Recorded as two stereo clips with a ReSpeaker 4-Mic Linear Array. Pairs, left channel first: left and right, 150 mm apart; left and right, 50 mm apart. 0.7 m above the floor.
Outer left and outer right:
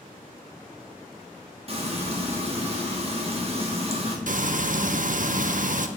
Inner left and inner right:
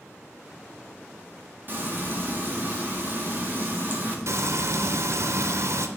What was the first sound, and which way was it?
Frying, 40° right (ahead or behind).